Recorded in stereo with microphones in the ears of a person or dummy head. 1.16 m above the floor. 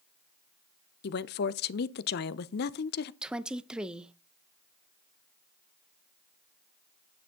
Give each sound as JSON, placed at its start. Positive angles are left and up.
{"t": 1.0, "sound": "a woman speaking", "side_deg": 55, "distance_m": 0.7}
{"t": 3.2, "sound": "a woman speaking", "side_deg": 0, "distance_m": 0.6}